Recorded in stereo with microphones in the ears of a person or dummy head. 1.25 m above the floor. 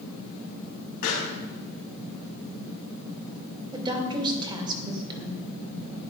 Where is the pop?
60° left (ahead or behind), 3 m.